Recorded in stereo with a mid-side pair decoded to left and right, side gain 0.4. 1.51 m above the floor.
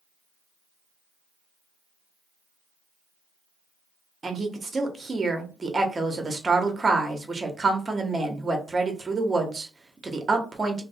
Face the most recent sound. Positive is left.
turn(degrees=-30)